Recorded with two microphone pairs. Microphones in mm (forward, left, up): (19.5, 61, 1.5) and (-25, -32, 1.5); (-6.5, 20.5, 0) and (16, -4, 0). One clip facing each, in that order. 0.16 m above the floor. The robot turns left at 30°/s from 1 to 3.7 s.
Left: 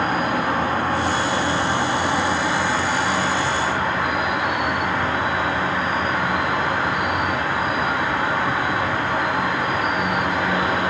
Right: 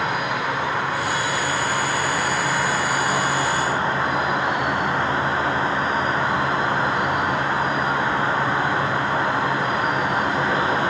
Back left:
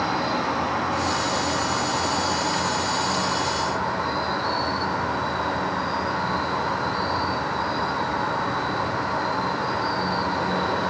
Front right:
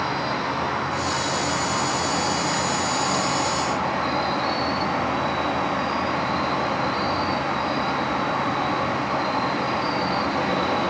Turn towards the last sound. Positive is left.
turn(degrees=-55)